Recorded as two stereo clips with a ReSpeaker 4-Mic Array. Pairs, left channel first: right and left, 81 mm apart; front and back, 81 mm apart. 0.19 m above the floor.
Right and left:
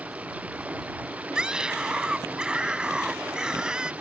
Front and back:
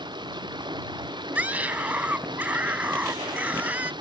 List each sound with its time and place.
0.0 s running water: 165° left
1.4 s a scream: 155° left